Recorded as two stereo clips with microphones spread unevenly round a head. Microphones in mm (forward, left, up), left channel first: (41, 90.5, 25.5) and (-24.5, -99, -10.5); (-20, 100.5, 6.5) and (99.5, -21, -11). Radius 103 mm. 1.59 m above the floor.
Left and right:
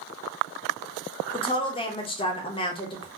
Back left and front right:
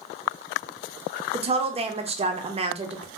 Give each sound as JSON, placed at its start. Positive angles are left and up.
{"t": 1.3, "sound": "a woman speaking", "azimuth_deg": 10, "distance_m": 0.6}